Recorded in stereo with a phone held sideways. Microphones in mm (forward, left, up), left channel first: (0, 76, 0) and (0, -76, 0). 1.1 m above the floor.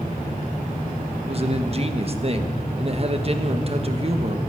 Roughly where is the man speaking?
Right.